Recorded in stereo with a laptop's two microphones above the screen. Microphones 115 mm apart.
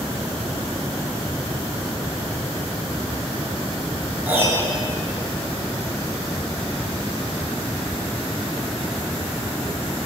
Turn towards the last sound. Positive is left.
turn(degrees=-20)  # may be behind; listen again after turning